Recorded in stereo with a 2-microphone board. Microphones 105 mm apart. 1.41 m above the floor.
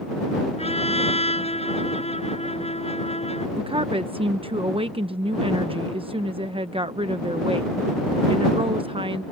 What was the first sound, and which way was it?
A trumpet, 75° left (ahead or behind).